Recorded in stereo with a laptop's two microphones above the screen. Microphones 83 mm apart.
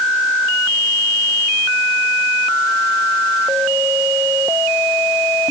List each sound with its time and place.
Only background noise.